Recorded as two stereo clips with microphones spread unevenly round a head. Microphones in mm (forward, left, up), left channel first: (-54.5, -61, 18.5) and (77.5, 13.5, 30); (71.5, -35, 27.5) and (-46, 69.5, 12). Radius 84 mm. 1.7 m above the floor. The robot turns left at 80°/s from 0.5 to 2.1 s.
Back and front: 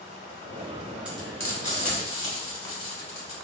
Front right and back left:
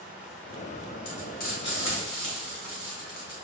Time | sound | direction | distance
1.1 | frying | 50° right | 1.3 m